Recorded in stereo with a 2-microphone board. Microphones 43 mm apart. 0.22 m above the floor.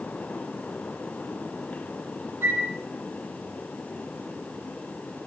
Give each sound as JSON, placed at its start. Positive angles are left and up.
{"t": 2.4, "sound": "a flute", "side_deg": -55, "distance_m": 9.0}